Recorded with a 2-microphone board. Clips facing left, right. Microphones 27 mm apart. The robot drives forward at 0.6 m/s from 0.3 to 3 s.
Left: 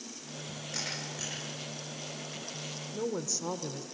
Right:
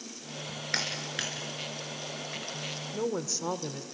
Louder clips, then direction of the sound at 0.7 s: Right 6 dB; 70° right (ahead or behind).